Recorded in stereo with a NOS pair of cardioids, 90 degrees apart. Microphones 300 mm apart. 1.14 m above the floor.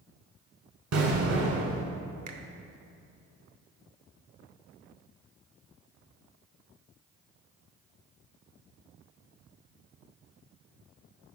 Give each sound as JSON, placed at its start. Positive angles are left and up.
{"t": 0.9, "sound": "an explosion", "azimuth_deg": -65, "distance_m": 1.8}
{"t": 2.3, "sound": "a finger snap", "azimuth_deg": -70, "distance_m": 0.9}